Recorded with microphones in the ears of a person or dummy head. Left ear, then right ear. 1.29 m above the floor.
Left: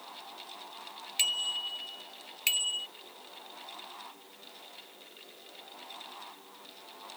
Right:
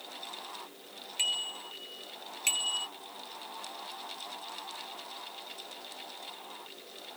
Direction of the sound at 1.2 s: 40° left (ahead or behind).